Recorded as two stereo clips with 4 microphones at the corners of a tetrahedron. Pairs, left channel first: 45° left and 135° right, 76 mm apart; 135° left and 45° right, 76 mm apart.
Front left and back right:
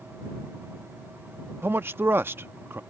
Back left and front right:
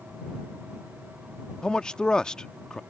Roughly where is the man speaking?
Behind.